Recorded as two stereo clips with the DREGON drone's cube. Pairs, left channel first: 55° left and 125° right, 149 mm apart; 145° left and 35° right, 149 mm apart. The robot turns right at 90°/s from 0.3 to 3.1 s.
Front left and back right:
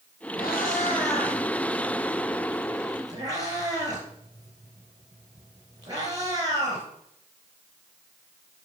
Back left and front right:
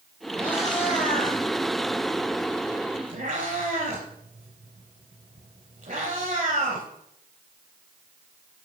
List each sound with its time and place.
0.4 s a cat meowing: 55° left, 3.5 m; by 6.9 s 60° right, 3.5 m